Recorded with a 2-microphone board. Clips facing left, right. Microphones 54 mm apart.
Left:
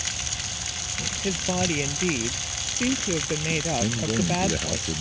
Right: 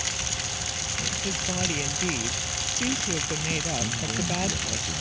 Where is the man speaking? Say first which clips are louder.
Left 4 dB; 45° left (ahead or behind).